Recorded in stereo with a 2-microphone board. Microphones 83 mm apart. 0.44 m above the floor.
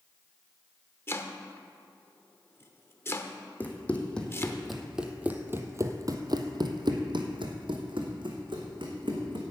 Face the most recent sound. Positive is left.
turn(degrees=-75)  # may be behind; listen again after turning